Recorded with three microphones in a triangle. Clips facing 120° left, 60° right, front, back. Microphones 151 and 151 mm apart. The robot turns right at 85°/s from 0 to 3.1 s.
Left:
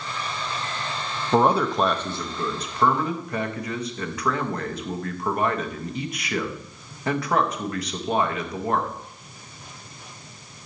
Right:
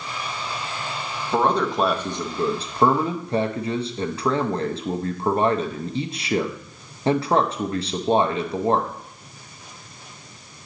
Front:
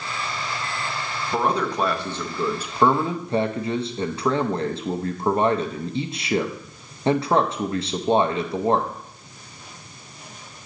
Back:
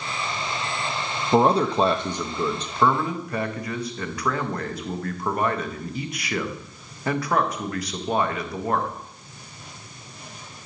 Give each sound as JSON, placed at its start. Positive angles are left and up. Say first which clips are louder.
{"t": 1.3, "sound": "a man speaking", "louder": "left 1 dB, back 5 dB", "azimuth_deg": 175, "distance_m": 0.6}